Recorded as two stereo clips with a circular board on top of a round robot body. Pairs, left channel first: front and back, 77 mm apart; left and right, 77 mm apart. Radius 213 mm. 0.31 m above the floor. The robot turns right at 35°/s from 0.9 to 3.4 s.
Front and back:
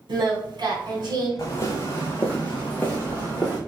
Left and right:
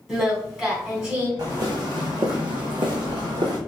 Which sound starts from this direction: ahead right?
Footsteps, at 1.4 s.